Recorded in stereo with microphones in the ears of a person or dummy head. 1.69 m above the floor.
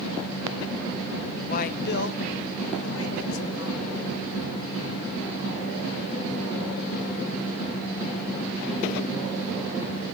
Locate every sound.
1.5 s a man speaking: 40° left (ahead or behind), 0.7 m; by 4.0 s 80° left, 2.5 m